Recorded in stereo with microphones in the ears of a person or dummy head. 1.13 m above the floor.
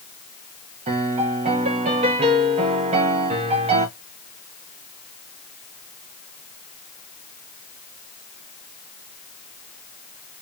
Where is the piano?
30° right (ahead or behind), 0.6 m.